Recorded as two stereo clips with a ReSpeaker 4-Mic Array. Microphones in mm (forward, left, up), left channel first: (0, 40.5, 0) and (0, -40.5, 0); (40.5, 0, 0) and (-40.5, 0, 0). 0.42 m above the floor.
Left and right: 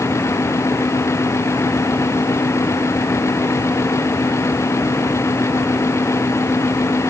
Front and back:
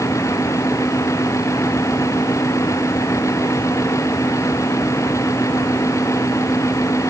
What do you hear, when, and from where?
Only background noise.